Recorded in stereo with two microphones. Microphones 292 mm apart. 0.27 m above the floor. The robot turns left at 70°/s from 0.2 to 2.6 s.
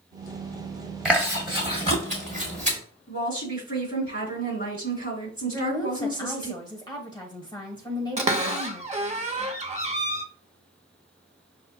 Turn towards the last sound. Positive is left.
turn(degrees=-25)  # may be behind; listen again after turning